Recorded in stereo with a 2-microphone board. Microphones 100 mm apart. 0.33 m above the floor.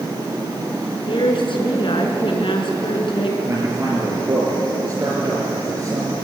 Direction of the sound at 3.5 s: 30° right (ahead or behind).